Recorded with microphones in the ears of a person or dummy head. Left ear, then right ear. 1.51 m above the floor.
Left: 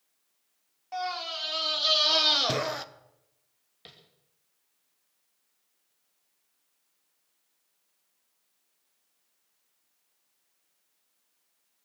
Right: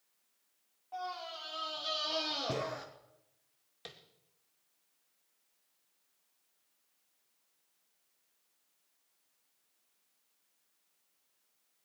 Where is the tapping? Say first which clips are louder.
Right 1 dB; 35° right (ahead or behind), 2 m.